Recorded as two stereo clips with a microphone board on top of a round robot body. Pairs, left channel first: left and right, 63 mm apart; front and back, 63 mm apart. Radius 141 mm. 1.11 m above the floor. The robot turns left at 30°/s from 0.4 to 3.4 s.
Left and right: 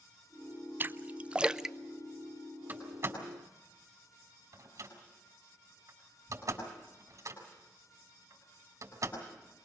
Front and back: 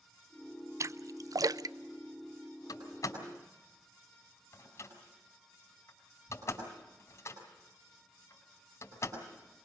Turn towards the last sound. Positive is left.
turn(degrees=-45)